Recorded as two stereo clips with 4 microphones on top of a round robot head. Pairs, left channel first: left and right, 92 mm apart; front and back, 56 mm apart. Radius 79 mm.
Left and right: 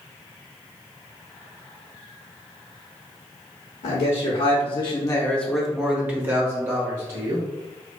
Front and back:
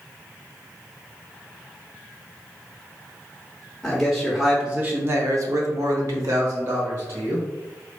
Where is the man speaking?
85° left, 0.9 m; by 7.5 s 145° right, 1.4 m.